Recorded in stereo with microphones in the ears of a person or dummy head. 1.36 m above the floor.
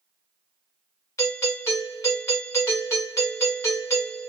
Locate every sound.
1.2 s a doorbell: 20° left (ahead or behind), 1.4 m